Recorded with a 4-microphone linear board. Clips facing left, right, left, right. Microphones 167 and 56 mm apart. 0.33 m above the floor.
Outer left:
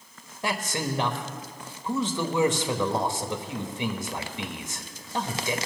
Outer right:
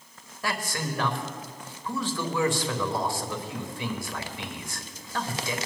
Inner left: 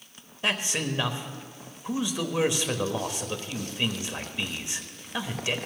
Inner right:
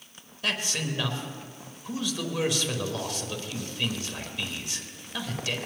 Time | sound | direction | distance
0.4 | a man speaking | 25° left (ahead or behind) | 1.1 m